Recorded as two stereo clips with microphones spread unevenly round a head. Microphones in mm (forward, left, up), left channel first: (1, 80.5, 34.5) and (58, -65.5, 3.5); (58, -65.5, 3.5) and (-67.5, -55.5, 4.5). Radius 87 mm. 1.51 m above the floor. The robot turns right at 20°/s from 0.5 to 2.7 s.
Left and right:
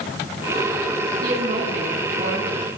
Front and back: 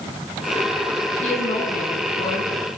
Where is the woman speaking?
35° right, 9.5 m; by 2.7 s 5° right, 9.5 m.